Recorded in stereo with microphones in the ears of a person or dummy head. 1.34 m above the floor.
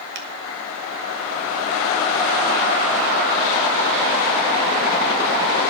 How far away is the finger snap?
About 1.0 m.